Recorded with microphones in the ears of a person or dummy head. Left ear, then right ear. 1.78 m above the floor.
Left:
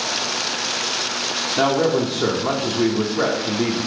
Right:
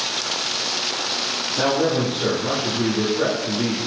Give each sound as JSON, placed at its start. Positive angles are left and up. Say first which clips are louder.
{"t": 1.6, "sound": "a man speaking", "louder": "left 2 dB", "side_deg": 55, "distance_m": 0.6}